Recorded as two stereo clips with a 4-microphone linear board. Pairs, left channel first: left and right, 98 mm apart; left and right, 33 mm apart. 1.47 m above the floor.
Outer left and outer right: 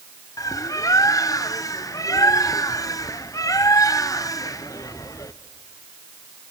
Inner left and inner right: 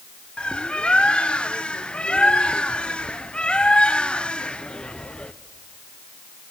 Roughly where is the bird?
Left.